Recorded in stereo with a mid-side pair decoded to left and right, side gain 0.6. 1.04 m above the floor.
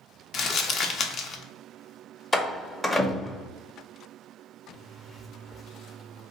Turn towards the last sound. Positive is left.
turn(degrees=25)